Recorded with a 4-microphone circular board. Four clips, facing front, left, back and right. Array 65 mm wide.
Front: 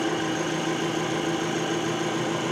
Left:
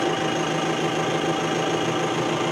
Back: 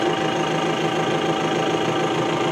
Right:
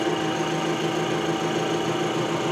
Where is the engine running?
165° left, 3.5 m.